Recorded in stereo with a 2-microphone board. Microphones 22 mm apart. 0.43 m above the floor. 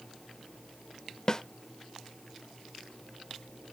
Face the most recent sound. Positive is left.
turn(degrees=30)  # may be behind; listen again after turning